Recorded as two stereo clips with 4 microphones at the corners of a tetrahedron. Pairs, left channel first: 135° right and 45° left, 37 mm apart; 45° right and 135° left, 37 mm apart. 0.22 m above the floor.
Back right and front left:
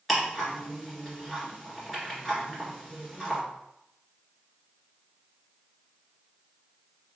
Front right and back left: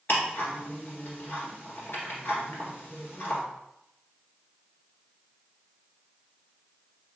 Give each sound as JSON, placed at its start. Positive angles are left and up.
{"t": 0.1, "sound": "ticking", "azimuth_deg": -40, "distance_m": 1.7}